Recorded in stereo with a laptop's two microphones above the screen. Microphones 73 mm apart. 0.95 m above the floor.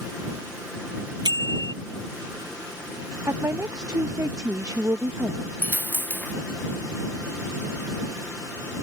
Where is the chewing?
I don't hear chewing.